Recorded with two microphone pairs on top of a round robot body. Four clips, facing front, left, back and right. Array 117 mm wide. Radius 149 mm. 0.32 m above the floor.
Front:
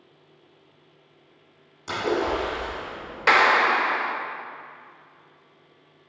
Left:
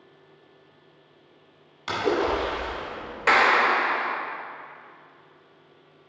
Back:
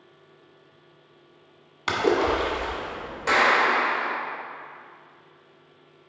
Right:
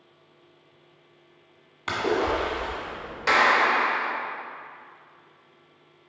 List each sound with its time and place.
1.9 s a splash: 165° right, 1.7 m
3.3 s a clap: 20° left, 1.4 m